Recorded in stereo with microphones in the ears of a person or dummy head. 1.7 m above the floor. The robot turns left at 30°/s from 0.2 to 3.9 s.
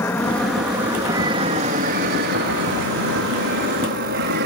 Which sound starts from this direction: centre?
An aircraft, at 0.0 s.